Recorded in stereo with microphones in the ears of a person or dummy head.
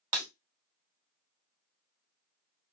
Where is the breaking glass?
45° right (ahead or behind), 2.0 m.